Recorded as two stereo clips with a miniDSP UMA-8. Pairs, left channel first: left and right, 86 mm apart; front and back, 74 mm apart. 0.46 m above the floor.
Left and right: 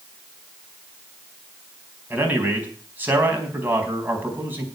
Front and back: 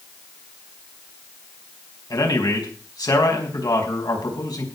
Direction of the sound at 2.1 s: 25° right.